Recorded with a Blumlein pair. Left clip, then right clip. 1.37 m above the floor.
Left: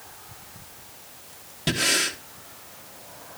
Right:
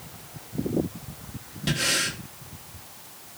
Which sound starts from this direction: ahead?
Breathing, at 1.7 s.